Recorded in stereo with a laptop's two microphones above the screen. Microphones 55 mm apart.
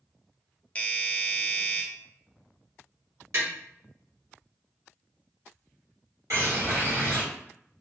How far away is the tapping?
About 1.4 m.